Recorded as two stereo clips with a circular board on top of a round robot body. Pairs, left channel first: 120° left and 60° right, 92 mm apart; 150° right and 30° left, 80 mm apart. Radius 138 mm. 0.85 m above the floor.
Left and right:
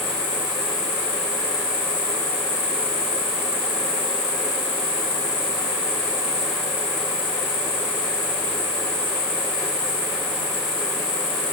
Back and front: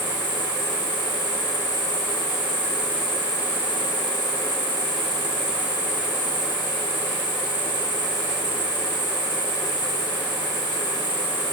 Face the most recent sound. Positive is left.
turn(degrees=100)